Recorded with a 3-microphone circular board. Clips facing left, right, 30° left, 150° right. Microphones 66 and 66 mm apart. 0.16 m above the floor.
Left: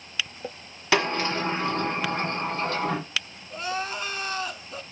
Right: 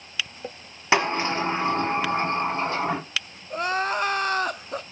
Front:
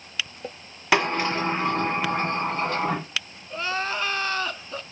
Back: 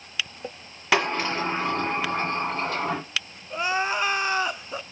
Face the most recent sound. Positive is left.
turn(degrees=-80)